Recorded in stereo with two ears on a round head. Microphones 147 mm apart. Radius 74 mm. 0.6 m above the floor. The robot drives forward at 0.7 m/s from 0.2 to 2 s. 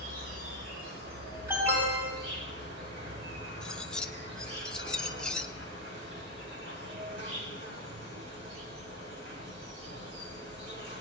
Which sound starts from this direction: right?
An insect, at 0.0 s.